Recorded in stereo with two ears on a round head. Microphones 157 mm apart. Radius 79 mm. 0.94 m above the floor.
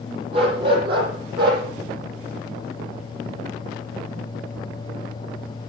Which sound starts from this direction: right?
A dog barking, at 0.3 s.